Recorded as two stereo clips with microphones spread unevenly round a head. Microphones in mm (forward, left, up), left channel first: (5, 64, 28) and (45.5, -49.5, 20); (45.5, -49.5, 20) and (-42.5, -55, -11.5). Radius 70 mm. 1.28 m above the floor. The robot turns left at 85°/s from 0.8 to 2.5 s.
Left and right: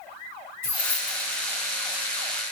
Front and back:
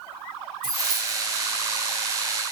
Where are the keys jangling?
135° left, 2.0 m; by 1.4 s 80° left, 2.0 m.